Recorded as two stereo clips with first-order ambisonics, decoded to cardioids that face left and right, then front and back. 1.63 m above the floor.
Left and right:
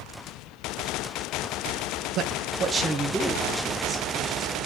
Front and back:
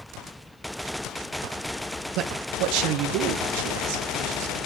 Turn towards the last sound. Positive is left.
turn(degrees=170)